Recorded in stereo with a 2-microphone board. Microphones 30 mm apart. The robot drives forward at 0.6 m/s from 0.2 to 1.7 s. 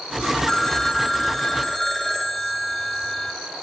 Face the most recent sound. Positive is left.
turn(degrees=10)  # may be behind; listen again after turning